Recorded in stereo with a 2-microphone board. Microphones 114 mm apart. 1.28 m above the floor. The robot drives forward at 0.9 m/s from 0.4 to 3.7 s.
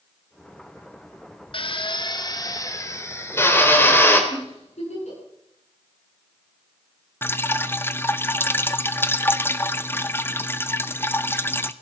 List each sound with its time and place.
1.5 s a drill: 50° left (ahead or behind), 1.1 m; by 4.2 s 20° left (ahead or behind), 2.5 m
4.3 s a giggle: 80° left, 10 m
7.2 s dripping: 20° left (ahead or behind), 0.6 m